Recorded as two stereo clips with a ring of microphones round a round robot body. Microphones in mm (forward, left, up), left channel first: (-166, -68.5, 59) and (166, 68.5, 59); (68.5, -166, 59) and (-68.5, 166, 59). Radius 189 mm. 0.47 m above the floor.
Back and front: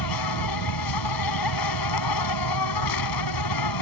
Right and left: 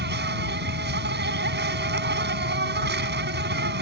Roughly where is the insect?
Behind.